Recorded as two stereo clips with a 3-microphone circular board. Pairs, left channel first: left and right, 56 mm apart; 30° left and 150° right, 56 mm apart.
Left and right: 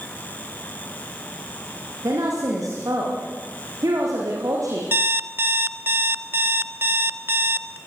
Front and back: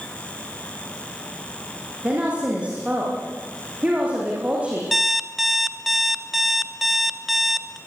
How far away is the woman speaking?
About 8 m.